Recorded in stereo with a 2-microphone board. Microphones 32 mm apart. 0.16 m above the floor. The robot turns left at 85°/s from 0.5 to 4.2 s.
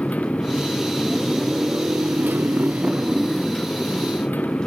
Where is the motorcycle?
60° left; by 4.7 s 105° left.